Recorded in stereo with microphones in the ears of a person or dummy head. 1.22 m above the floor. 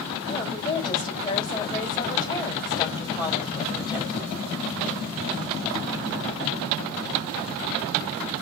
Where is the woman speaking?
20° left (ahead or behind), 5 m.